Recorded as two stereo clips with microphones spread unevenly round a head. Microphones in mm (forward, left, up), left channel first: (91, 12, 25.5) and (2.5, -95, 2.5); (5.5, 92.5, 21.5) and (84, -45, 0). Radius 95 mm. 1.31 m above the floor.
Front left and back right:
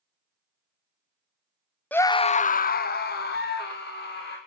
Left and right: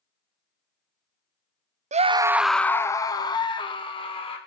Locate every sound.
1.9 s a scream: 35° right, 0.7 m; by 4.4 s 65° left, 2.5 m